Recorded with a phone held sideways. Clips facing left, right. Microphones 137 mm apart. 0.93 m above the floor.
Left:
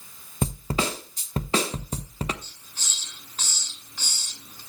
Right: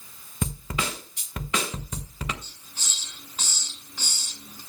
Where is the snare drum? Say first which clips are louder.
Left 4 dB; 35° left (ahead or behind), 1.0 m.